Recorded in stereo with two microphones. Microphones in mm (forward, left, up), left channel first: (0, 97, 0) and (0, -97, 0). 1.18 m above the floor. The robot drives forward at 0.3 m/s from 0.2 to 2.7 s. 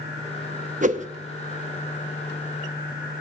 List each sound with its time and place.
0.8 s a whoosh: 40° right (ahead or behind), 0.7 m